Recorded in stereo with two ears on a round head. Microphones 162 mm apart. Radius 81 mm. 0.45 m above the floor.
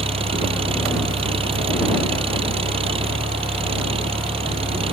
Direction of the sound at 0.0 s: 30° right (ahead or behind).